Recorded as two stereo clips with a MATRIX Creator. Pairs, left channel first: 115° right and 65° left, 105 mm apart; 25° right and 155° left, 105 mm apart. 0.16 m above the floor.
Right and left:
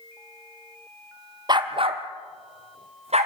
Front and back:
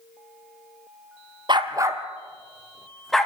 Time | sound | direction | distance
1.5 | a dog barking | 115° left | 1.4 m